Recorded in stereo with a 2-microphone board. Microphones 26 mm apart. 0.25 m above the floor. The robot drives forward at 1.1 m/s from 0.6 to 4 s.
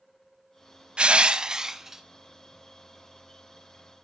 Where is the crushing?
50° right (ahead or behind), 0.5 m; by 2.0 s 20° right (ahead or behind), 1.2 m.